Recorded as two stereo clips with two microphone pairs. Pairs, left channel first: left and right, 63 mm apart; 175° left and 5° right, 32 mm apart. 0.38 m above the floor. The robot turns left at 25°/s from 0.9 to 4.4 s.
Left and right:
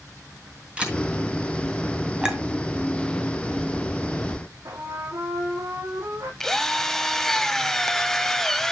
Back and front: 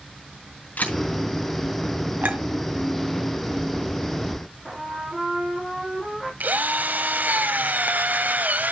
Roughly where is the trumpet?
Right.